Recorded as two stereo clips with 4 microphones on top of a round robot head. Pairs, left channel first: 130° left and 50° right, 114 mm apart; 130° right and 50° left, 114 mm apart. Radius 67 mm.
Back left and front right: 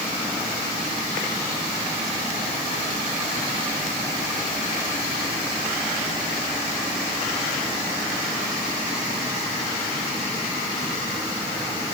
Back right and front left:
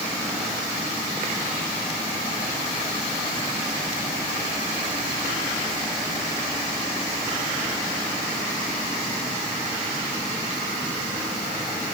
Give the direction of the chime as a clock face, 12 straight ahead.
I don't hear a chime.